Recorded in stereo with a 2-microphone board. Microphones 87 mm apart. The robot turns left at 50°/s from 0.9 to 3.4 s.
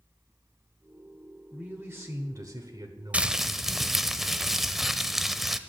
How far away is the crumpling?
About 0.6 m.